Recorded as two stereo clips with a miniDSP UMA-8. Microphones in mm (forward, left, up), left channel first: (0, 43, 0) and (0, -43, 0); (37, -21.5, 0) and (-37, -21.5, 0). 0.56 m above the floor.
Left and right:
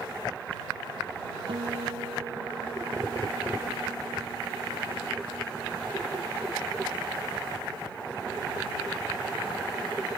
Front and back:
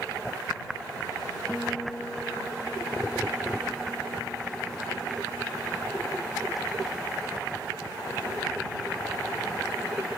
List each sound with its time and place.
1.5 s a guitar: 70° right